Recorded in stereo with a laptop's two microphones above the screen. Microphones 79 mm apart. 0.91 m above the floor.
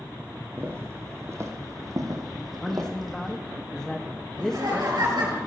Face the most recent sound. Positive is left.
turn(degrees=-70)  # may be behind; listen again after turning